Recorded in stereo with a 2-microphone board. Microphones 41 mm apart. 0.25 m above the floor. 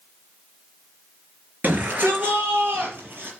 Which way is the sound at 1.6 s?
45° right (ahead or behind).